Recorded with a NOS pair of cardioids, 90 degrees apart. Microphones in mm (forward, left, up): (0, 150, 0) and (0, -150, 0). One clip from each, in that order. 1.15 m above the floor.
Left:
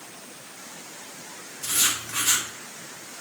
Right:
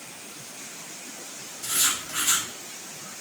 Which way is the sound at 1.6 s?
40° left.